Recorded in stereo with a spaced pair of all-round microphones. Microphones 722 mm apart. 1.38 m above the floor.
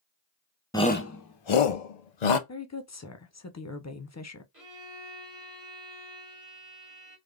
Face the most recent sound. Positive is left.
turn(degrees=-25)  # may be behind; listen again after turning